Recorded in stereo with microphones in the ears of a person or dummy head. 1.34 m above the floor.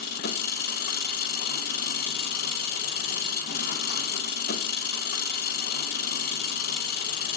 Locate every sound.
0.0 s an engine running: 55° left (ahead or behind), 1.9 m